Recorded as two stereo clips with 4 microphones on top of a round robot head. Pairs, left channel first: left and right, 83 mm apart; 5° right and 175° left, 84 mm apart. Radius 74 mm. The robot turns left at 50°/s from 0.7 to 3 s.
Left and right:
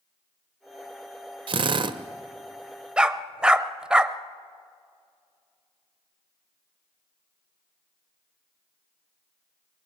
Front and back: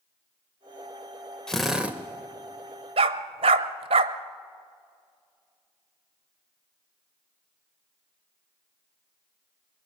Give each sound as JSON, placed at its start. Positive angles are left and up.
{"t": 1.5, "sound": "a drill", "azimuth_deg": -90, "distance_m": 0.8}
{"t": 3.0, "sound": "a dog barking", "azimuth_deg": -170, "distance_m": 0.7}